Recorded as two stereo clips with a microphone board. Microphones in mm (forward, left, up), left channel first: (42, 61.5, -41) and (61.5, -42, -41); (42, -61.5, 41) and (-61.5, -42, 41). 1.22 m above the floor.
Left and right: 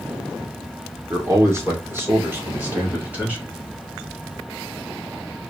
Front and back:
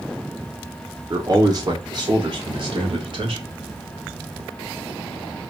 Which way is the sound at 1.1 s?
135° right.